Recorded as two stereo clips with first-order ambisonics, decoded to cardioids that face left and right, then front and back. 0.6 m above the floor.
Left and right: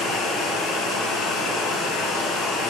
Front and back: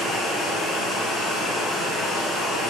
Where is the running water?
65° left, 1.4 m.